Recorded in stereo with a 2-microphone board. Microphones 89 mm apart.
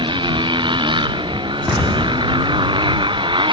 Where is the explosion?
5° right (ahead or behind).